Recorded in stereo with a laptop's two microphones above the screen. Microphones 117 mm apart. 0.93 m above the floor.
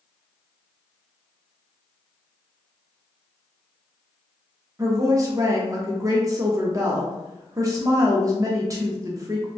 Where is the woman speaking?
30° right (ahead or behind), 0.5 m.